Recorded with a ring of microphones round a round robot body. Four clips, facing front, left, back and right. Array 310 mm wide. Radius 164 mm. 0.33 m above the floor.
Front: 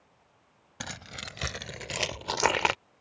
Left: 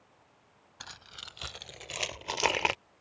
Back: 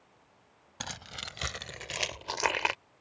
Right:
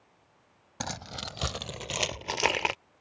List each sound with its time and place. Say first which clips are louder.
0.8 s keys jangling: right 12 dB, front 1 dB; 75° right; by 2.8 s 10° left